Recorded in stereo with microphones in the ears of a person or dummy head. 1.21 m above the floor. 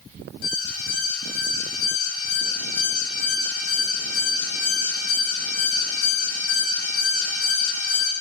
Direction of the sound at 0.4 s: 70° left (ahead or behind).